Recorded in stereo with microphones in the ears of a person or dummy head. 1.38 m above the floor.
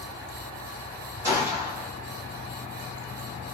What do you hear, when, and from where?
1.2 s a gunshot: 15° right (ahead or behind), 1.8 m